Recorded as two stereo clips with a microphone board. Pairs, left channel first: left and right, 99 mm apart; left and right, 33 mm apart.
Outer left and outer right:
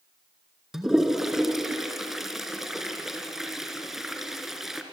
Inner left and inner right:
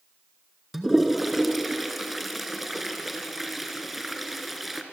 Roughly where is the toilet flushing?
Centre.